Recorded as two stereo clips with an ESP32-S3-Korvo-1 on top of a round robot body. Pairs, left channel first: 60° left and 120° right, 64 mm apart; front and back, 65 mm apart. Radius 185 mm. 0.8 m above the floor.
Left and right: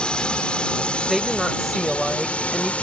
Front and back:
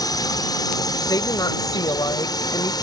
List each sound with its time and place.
0.0 s a drone: 15° right; by 2.8 s 10° right
1.1 s a woman speaking: 30° right